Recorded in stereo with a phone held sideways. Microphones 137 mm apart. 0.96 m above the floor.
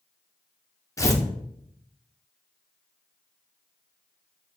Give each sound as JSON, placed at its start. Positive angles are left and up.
{"t": 1.0, "sound": "tearing paper", "side_deg": 25, "distance_m": 0.5}